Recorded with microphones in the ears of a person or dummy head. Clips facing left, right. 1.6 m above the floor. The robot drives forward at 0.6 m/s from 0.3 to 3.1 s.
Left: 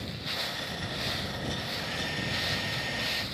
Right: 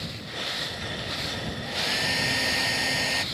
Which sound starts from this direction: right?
A hair dryer, at 1.6 s.